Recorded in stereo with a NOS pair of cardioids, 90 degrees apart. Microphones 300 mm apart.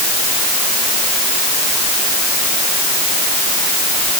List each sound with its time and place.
Only background noise.